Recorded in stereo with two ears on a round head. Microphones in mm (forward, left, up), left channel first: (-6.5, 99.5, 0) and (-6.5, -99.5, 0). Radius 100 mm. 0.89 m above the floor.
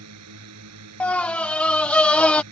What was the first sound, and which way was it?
A drone, 75° right (ahead or behind).